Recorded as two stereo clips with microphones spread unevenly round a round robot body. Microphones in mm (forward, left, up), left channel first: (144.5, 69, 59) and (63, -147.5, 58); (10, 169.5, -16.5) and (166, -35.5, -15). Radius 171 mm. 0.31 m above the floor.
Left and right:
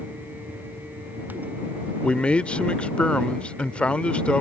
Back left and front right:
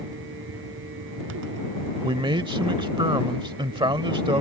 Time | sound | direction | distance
2.0 | a man speaking | 10° right | ?